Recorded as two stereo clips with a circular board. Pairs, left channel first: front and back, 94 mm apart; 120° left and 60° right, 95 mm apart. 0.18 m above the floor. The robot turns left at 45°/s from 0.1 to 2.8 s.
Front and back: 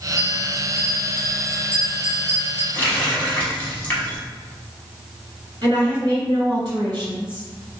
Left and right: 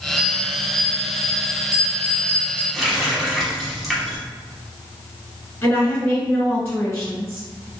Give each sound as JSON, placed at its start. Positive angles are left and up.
{"t": 0.2, "sound": "a bell", "azimuth_deg": 95, "distance_m": 1.4}
{"t": 2.7, "sound": "a running tap", "azimuth_deg": 30, "distance_m": 0.8}
{"t": 5.6, "sound": "a woman speaking", "azimuth_deg": 175, "distance_m": 1.9}